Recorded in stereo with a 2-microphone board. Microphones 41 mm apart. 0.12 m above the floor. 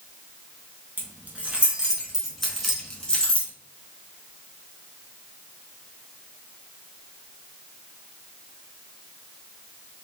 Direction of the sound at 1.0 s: 45° right (ahead or behind).